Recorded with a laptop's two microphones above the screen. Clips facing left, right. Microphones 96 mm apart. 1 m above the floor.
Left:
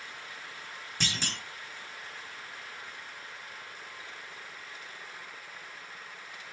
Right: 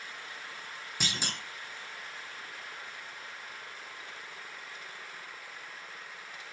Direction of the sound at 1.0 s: 10° right (ahead or behind).